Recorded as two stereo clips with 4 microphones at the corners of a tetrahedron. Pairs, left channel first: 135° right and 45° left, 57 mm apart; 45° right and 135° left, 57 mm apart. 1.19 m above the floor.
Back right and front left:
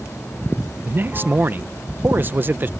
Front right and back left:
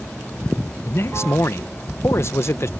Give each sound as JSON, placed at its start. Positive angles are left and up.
{"t": 0.8, "sound": "a man speaking", "azimuth_deg": -5}